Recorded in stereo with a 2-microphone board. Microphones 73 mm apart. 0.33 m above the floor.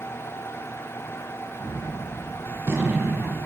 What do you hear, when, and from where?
1.6 s a gunshot: 35° right (ahead or behind), 2.5 m